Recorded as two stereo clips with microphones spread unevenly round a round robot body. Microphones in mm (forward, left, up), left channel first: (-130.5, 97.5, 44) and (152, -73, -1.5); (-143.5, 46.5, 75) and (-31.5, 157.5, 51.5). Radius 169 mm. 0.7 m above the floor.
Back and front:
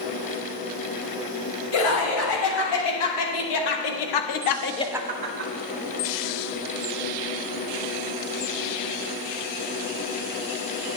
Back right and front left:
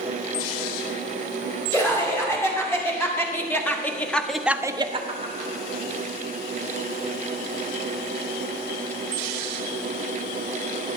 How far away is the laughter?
About 4 m.